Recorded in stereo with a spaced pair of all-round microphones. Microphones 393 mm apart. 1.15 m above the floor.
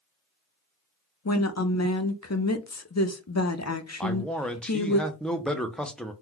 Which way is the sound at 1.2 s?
45° left (ahead or behind).